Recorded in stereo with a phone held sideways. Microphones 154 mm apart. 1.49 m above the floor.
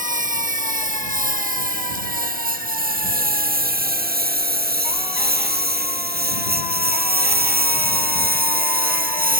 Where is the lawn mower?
55° right (ahead or behind); by 9.4 s 65° right (ahead or behind).